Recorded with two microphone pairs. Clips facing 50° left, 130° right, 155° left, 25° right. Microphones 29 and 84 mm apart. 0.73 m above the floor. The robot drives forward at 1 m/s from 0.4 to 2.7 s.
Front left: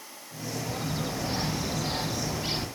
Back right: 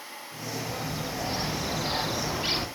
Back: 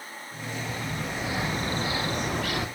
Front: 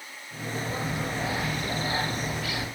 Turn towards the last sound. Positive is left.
turn(degrees=175)